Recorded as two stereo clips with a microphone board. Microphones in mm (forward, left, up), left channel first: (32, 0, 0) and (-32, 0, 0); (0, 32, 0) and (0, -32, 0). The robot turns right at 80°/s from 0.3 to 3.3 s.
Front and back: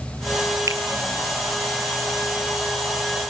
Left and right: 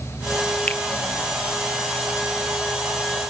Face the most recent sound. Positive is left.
turn(degrees=5)